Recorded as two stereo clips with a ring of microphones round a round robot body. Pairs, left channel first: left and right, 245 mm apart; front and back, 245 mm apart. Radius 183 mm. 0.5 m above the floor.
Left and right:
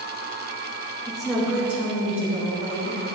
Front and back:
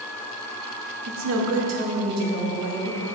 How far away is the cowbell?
I don't hear a cowbell.